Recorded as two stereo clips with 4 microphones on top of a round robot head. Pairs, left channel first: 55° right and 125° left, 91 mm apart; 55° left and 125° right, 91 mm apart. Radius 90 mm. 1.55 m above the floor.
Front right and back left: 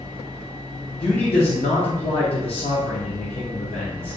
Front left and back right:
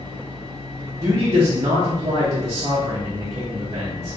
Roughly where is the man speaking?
Right.